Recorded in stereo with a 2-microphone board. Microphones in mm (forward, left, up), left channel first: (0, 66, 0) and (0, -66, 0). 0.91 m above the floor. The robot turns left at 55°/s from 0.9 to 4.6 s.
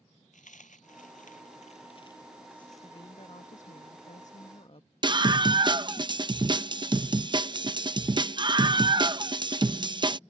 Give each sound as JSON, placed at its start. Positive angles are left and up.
{"t": 0.3, "sound": "a dropped coin", "side_deg": 75}
{"t": 2.8, "sound": "a woman speaking", "azimuth_deg": 150}
{"t": 5.0, "sound": "a scream", "side_deg": -35}